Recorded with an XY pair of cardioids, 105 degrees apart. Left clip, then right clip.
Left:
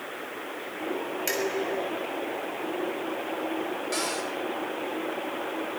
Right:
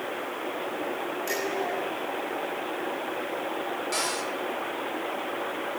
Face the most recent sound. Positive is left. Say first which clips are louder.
# right 1 dB
turn(degrees=0)